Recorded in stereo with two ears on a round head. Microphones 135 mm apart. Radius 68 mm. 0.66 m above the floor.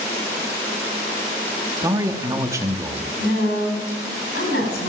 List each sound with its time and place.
1.8 s a man speaking: 20° right (ahead or behind), 1.1 m
3.2 s a woman speaking: 80° left, 5.5 m